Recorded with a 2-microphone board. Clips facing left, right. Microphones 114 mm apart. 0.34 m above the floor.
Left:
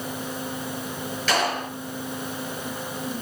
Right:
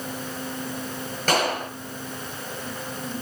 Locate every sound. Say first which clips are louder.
1.3 s a clap: right 1 dB; 50° right (ahead or behind), 5.5 m